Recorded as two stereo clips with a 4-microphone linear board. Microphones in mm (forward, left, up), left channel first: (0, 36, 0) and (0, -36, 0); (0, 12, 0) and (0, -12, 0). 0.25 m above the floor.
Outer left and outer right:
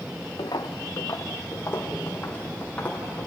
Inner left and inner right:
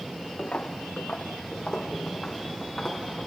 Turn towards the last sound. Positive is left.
turn(degrees=15)  # may be behind; listen again after turning